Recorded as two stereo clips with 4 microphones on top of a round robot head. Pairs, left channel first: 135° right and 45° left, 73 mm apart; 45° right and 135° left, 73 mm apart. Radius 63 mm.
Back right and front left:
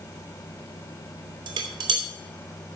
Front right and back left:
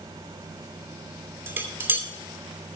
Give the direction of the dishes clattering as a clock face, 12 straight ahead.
10 o'clock.